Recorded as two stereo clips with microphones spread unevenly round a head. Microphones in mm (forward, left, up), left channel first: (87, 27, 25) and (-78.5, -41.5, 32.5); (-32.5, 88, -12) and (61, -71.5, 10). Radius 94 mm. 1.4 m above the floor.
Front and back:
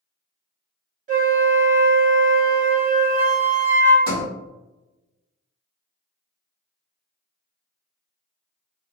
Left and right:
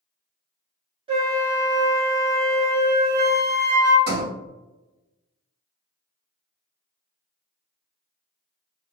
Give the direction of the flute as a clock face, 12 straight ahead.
4 o'clock.